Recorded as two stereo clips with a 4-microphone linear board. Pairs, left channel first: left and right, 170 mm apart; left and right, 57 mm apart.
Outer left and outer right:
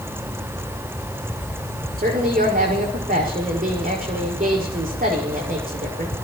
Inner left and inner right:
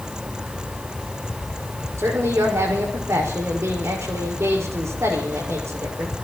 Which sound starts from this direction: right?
A woman speaking, at 2.0 s.